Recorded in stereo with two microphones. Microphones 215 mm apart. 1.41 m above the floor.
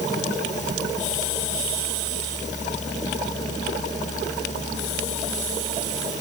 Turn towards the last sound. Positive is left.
No sound to turn to.